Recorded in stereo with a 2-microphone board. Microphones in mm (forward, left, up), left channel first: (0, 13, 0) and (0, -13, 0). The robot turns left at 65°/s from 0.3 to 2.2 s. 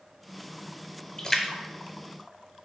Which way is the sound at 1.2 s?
30° left (ahead or behind).